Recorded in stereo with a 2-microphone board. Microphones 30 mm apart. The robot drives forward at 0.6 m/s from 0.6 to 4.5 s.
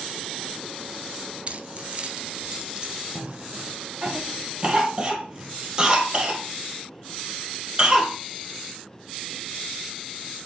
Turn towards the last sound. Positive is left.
turn(degrees=-35)  # may be behind; listen again after turning